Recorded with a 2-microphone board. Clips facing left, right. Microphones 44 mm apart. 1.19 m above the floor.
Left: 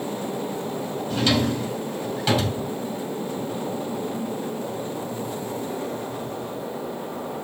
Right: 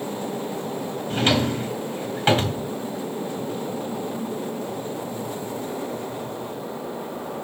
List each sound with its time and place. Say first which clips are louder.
1.1 s a drawer: right 1 dB; 35° right (ahead or behind), 3.5 m